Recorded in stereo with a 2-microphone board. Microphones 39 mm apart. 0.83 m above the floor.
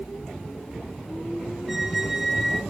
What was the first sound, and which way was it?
A squeak, 5° right (ahead or behind).